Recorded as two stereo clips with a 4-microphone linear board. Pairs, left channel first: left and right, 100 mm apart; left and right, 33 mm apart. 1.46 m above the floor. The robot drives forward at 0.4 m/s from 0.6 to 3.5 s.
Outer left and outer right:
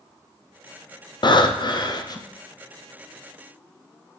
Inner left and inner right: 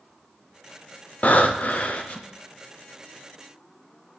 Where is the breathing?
50° left (ahead or behind), 0.5 m; by 2.3 s 40° left (ahead or behind), 0.6 m.